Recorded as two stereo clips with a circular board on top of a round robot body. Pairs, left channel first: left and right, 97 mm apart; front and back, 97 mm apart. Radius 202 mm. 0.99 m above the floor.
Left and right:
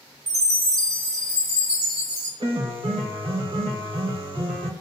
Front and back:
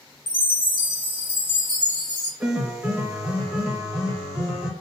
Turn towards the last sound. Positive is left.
turn(degrees=-100)